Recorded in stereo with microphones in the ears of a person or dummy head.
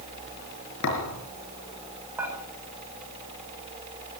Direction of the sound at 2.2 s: 10° right (ahead or behind).